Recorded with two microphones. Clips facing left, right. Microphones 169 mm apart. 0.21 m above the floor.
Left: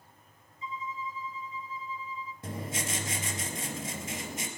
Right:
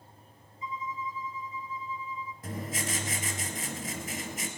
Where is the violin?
30° left (ahead or behind), 1.4 m.